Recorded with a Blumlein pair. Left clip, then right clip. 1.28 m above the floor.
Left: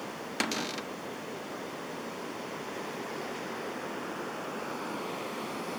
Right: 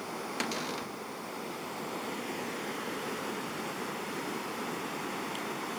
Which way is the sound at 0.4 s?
15° left.